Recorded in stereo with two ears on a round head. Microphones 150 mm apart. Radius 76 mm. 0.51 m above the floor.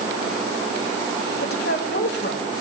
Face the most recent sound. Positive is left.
turn(degrees=60)  # may be behind; listen again after turning